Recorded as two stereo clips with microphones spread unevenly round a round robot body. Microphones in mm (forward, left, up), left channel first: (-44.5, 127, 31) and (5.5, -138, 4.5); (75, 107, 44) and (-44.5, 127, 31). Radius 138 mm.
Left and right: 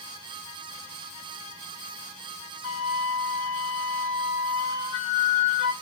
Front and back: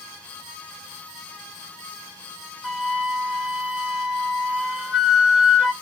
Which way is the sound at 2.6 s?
80° left.